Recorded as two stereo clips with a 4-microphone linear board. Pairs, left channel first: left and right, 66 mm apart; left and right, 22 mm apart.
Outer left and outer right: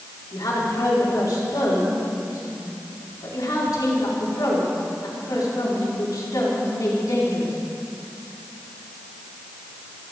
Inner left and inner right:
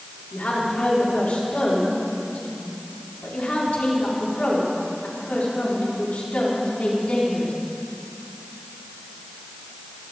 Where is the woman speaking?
90° left, 4.5 m.